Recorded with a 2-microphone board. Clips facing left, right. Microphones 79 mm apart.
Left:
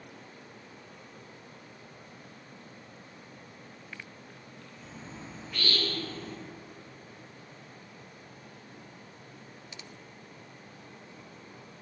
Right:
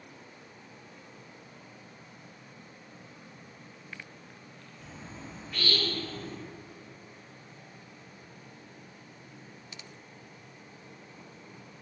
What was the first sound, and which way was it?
A bird, 10° left (ahead or behind).